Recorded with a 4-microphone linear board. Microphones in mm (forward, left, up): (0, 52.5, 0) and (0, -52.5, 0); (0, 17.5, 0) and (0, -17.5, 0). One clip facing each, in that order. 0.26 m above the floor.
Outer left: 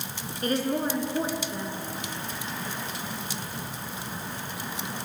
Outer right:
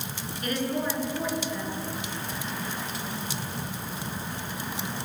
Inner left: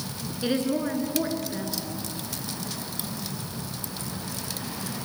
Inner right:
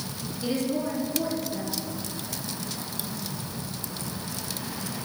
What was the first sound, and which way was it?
A woman speaking, 35° left (ahead or behind).